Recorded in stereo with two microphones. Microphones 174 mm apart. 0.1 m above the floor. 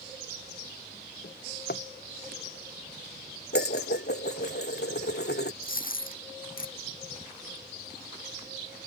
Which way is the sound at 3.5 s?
75° left (ahead or behind).